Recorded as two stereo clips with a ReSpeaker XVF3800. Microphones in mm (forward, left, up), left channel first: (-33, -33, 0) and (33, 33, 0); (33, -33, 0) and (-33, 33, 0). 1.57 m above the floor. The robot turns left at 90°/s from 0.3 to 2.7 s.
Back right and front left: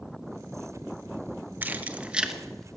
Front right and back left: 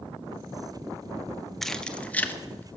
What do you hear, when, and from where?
1.6 s keys jangling: 40° left, 0.8 m; by 2.8 s 60° right, 0.8 m